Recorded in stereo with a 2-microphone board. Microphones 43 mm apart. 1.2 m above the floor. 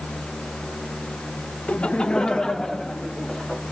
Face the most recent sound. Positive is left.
turn(degrees=5)  # may be behind; listen again after turning